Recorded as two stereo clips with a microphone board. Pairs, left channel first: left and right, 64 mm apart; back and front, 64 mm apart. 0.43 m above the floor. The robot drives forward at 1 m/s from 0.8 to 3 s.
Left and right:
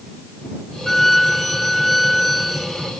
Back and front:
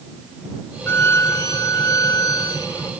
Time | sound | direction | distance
0.9 | a violin | 175° left | ?